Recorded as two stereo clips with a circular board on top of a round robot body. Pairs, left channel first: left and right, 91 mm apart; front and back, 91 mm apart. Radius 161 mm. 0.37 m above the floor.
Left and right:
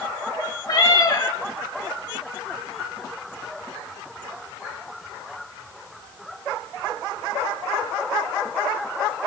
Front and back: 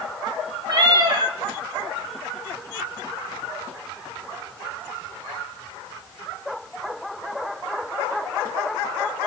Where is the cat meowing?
140° left, 1.7 m.